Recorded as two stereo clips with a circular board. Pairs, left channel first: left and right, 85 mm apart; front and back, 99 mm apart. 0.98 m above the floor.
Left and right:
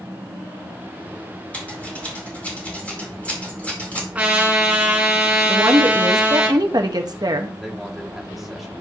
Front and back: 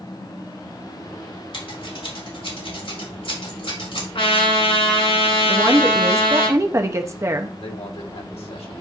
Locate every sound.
1.5 s scissors: 15° left, 3.5 m
4.2 s a trumpet: 15° right, 2.5 m
5.5 s a woman speaking: 120° right, 1.0 m
7.6 s a man speaking: straight ahead, 1.6 m